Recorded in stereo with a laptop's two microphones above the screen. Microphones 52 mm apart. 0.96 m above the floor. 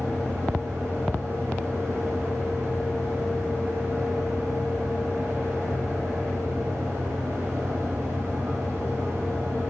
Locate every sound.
0.0 s a fan: 60° right (ahead or behind), 4.5 m